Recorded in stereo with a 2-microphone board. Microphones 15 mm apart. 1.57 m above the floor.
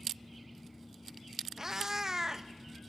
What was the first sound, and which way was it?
A cat meowing, 30° right (ahead or behind).